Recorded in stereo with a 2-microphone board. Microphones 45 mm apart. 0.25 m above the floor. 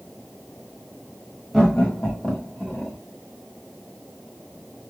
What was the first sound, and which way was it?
Laughter, 10° left (ahead or behind).